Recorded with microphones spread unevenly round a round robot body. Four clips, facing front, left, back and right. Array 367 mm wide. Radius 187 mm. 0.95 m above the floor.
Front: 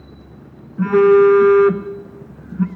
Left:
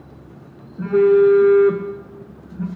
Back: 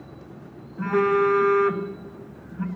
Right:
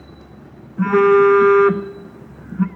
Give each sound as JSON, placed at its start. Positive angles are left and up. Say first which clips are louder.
{"t": 0.8, "sound": "a phone buzzing", "louder": "right 1 dB, front 10 dB", "azimuth_deg": -65, "distance_m": 0.8}